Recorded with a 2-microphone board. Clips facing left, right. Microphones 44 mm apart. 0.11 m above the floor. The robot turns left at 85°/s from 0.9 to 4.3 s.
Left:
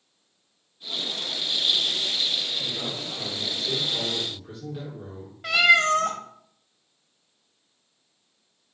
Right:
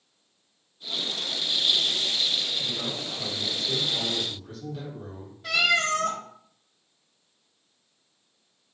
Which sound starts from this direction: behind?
A man speaking, at 2.6 s.